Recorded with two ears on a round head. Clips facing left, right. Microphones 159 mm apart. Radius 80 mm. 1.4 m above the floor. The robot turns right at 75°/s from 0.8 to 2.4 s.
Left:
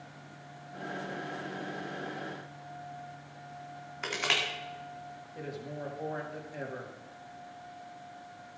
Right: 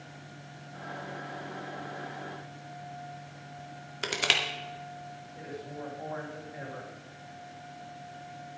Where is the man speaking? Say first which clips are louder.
Left 1 dB; 40° left (ahead or behind), 2.5 m.